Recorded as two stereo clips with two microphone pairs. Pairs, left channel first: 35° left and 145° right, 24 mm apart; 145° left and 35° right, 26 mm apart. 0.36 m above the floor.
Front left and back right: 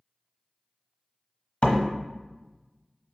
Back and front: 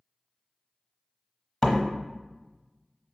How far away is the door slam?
About 1.1 m.